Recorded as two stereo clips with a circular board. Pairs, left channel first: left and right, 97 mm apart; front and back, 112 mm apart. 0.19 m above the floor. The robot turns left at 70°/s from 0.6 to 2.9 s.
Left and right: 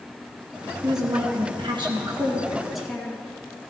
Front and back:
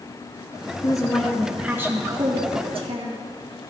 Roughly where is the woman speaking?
Ahead right.